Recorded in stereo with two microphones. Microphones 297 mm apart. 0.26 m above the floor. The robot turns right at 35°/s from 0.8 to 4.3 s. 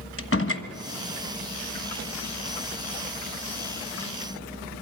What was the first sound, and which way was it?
A door slam, 45° left (ahead or behind).